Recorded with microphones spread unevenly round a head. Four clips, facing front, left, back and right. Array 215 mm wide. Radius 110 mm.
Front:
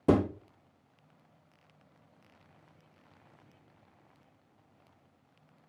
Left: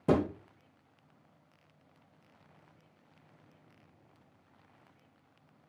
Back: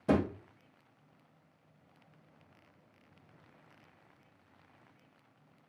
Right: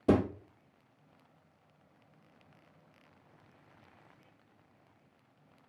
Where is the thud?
5° left, 1.4 m.